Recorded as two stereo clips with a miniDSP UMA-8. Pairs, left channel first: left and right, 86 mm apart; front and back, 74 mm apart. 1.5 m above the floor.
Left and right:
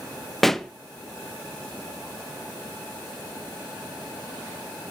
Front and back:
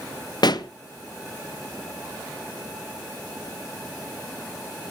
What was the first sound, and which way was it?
A pop, 5° left.